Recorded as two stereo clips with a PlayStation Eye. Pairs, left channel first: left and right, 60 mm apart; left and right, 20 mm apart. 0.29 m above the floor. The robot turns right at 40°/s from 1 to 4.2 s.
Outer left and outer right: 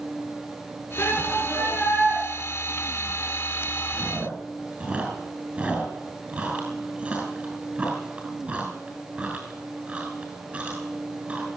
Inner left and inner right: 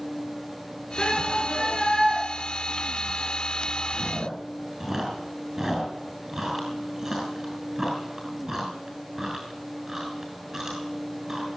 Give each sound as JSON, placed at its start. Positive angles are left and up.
{"t": 1.0, "sound": "a shout", "azimuth_deg": 130, "distance_m": 5.0}
{"t": 3.9, "sound": "chewing", "side_deg": -35, "distance_m": 5.5}